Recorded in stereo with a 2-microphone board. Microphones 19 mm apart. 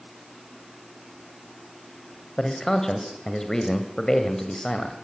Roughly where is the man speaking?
Left.